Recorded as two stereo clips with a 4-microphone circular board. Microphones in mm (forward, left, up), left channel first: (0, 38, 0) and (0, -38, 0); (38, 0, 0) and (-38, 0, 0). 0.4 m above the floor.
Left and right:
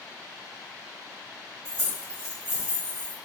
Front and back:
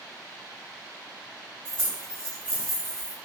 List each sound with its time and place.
1.6 s keys jangling: 125° left, 1.8 m